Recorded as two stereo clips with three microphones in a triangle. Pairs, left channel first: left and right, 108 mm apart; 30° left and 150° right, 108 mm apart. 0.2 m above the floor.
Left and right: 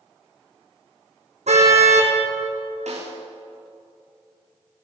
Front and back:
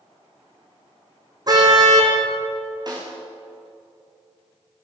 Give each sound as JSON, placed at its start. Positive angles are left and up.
{"t": 1.5, "sound": "a car horn", "azimuth_deg": -95, "distance_m": 4.5}
{"t": 2.9, "sound": "a snare drum", "azimuth_deg": -95, "distance_m": 8.5}